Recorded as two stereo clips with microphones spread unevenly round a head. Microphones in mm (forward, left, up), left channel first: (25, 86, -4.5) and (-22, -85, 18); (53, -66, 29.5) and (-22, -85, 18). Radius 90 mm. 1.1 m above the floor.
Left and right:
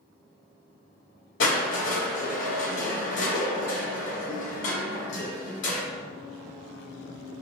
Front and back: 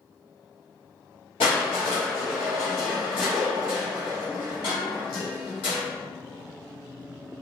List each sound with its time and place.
1.4 s crushing: 50° left, 1.6 m